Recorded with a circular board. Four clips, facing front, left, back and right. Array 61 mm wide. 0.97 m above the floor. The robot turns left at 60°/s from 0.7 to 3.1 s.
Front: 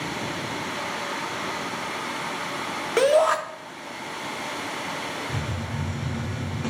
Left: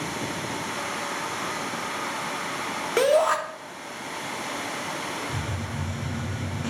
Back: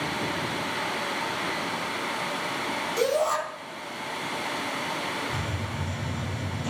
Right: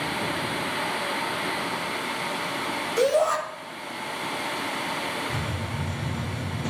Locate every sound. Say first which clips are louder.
3.0 s a shout: left 2 dB, front 7 dB; 35° left, 2.5 m; by 3.4 s 30° left, 2.5 m
5.3 s a hiss: right 1 dB, front 1 dB; 20° left, 6 m